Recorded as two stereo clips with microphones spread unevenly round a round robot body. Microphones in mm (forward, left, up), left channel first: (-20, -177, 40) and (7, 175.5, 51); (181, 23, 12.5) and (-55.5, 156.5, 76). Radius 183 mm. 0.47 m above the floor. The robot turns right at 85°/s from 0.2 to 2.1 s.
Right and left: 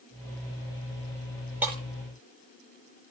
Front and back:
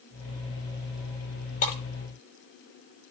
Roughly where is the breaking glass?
Ahead.